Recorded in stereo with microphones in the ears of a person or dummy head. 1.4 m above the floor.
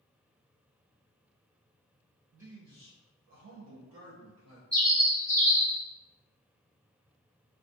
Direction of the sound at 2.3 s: 5° right (ahead or behind).